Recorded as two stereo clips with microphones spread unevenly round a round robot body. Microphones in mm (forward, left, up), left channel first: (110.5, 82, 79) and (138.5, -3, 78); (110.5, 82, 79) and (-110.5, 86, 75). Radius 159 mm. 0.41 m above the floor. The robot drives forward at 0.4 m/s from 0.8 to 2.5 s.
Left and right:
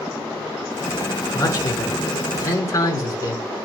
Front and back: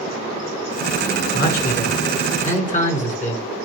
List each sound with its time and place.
1.3 s a man speaking: 50° left, 7 m; by 3.4 s 55° left, 6.5 m